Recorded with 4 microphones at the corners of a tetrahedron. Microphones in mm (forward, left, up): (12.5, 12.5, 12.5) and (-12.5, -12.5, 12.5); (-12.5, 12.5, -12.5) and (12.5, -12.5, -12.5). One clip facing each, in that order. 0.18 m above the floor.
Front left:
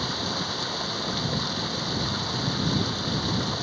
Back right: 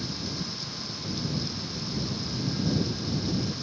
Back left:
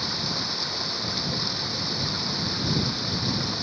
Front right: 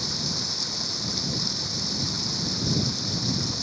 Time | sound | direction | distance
0.0 | running water | 70° left | ?